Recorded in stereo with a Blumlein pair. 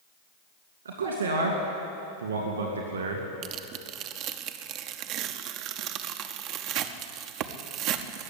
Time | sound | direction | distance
0.8 | a man speaking | 70° right | 2.5 m
3.4 | tearing paper | 40° right | 0.7 m